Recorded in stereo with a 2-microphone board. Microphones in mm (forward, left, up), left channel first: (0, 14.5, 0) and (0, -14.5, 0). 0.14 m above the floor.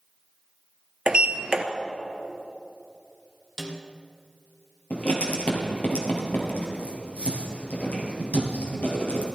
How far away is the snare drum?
About 2 m.